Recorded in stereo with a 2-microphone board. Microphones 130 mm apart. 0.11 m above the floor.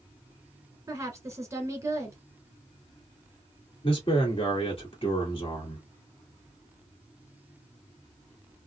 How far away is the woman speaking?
About 1.3 m.